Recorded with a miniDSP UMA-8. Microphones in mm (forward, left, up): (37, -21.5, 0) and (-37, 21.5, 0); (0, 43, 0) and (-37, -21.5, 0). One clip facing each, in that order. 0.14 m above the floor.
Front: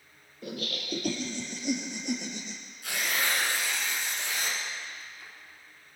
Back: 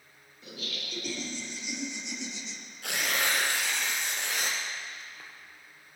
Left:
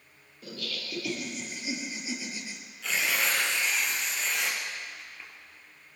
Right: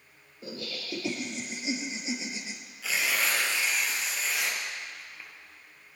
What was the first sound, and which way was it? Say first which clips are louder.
Laughter: front 5 dB, right 1 dB; 60° right.